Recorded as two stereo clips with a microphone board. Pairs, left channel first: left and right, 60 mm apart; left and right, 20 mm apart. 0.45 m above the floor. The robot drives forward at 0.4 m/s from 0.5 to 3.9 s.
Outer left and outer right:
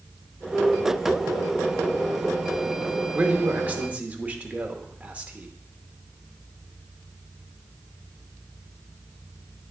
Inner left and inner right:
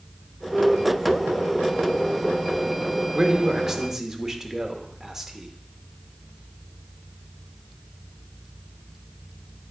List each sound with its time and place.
3.1 s a man speaking: 30° right (ahead or behind), 0.8 m; by 5.5 s 25° right (ahead or behind), 0.9 m